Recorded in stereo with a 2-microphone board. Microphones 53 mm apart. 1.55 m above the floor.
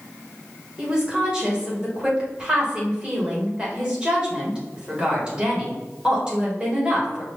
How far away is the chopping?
I don't hear chopping.